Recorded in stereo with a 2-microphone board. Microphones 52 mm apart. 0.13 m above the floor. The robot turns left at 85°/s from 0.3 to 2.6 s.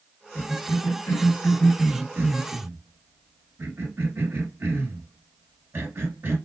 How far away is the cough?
About 1.8 m.